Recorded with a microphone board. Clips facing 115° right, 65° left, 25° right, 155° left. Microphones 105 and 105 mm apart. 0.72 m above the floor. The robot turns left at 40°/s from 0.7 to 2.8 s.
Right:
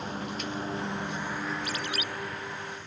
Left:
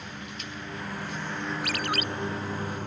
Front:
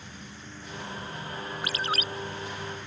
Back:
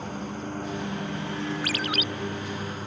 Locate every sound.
0.0 s a lawn mower: 170° right; by 2.9 s 110° left
1.6 s a ringtone: 45° left; by 2.0 s 30° left